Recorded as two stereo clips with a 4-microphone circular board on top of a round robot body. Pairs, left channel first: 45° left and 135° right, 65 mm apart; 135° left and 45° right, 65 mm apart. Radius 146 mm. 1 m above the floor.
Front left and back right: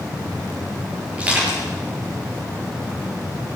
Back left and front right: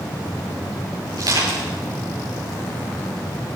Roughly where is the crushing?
Ahead right.